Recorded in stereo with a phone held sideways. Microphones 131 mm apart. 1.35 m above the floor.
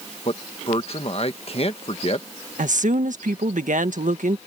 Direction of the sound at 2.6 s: 80° right.